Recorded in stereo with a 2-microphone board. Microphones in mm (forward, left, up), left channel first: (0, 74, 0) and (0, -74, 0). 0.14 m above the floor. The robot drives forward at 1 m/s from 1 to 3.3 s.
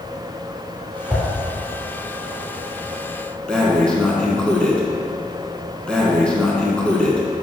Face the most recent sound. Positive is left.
turn(degrees=5)  # may be behind; listen again after turning